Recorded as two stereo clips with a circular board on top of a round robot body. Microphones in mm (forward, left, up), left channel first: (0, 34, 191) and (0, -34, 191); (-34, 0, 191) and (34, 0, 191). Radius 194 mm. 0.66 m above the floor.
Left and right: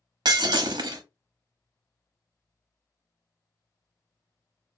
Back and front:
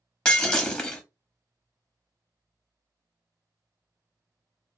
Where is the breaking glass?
105° right, 0.6 m.